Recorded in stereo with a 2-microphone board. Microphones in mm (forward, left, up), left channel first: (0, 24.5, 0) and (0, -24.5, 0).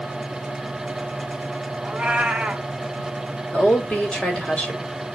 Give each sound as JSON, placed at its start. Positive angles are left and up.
{"t": 1.8, "sound": "a cat meowing", "side_deg": -20, "distance_m": 1.4}
{"t": 3.5, "sound": "a woman speaking", "side_deg": 25, "distance_m": 4.0}